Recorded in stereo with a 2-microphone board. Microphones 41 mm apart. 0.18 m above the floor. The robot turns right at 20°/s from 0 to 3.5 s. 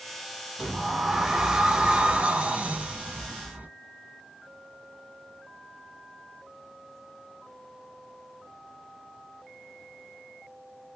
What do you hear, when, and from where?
0.6 s a sliding door: 170° right, 0.6 m; by 3.7 s 110° right, 0.6 m